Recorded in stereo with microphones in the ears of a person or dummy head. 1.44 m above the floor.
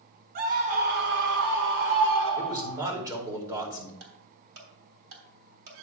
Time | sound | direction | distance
0.3 | a scream | 45° right (ahead or behind) | 1.6 m
2.4 | a man speaking | 20° right (ahead or behind) | 2.5 m
4.0 | ticking | 70° right (ahead or behind) | 3.5 m